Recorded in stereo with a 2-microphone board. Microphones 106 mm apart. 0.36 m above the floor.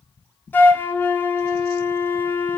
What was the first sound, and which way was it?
A flute, 20° left (ahead or behind).